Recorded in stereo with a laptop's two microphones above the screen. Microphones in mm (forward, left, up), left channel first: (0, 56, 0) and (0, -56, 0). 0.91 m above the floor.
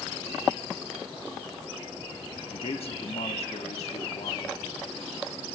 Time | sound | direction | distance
2.5 | a man speaking | 55° left (ahead or behind) | 1.0 m